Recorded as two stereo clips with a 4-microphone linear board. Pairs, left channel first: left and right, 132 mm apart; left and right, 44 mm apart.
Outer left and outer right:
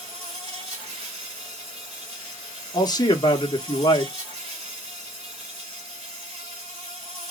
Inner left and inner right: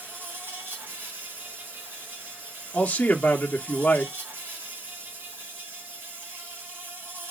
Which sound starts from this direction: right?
An insect, at 0.0 s.